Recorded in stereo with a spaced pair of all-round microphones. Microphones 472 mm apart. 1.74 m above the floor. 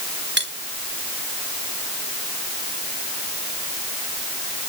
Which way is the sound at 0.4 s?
25° right (ahead or behind).